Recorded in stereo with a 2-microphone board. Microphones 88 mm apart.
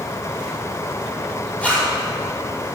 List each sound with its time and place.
1.6 s a zipper: 15° left (ahead or behind), 4 m